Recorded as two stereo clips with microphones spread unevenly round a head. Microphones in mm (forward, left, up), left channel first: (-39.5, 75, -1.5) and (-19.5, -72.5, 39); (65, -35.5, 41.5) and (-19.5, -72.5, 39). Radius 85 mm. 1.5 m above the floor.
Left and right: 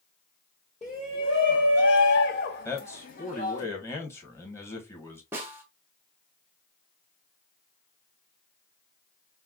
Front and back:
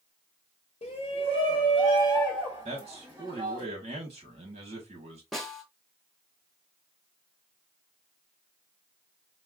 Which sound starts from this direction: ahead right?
A snare drum, at 5.3 s.